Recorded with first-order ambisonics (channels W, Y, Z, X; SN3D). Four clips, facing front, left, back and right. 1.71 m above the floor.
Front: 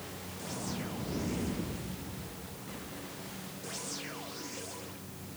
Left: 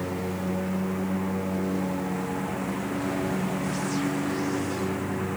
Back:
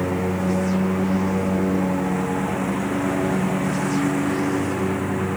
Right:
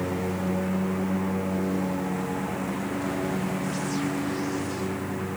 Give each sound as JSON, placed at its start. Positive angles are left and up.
{"t": 0.0, "sound": "a lawn mower", "azimuth_deg": -175}